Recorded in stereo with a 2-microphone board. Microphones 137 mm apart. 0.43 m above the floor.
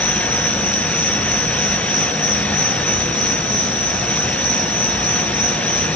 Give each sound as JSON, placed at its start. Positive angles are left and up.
{"t": 0.0, "sound": "an insect", "side_deg": -90, "distance_m": 9.5}